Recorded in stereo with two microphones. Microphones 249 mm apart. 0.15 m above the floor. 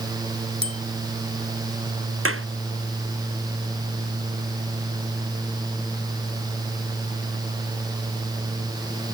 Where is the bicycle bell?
25° right (ahead or behind).